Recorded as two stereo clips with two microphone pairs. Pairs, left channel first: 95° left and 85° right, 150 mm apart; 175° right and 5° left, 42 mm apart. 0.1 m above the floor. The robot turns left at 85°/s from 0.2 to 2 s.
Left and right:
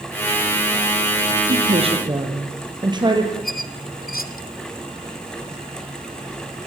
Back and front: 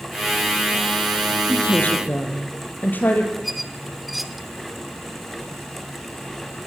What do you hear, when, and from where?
1.5 s a woman speaking: 95° right, 3.5 m; by 3.3 s 140° right, 3.5 m
3.4 s a squeak: 90° left, 1.0 m